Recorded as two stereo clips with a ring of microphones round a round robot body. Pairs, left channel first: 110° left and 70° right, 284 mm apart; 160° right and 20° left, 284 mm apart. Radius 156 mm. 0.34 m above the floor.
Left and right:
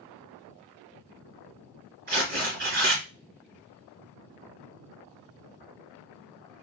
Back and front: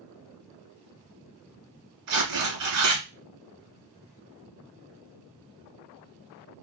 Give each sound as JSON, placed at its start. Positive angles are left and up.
{"t": 2.1, "sound": "tearing paper", "azimuth_deg": -10, "distance_m": 2.5}